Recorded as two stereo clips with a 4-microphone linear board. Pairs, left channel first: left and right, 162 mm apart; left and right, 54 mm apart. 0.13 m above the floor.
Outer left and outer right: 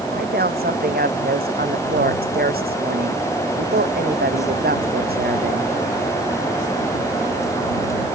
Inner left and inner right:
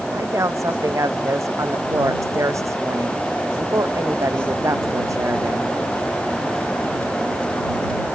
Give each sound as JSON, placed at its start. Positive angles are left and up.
{"t": 0.1, "sound": "a woman speaking", "side_deg": -70}